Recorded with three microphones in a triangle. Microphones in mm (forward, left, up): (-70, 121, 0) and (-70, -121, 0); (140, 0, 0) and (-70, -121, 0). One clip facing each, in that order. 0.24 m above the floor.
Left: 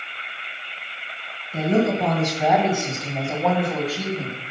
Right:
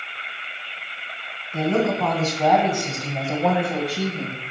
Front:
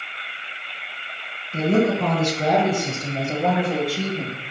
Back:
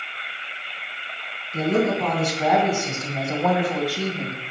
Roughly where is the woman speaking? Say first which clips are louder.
Left 1 dB, front 2 dB; ahead left.